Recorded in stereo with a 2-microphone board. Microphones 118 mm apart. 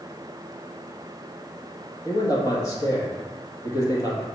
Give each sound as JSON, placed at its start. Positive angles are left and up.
{"t": 2.0, "sound": "a man speaking", "side_deg": 30, "distance_m": 2.5}